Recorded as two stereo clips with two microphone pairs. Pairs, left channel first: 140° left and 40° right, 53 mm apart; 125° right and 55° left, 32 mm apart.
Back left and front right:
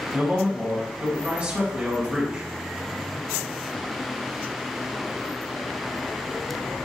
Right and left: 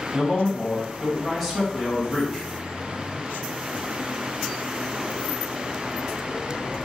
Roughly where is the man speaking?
Ahead right.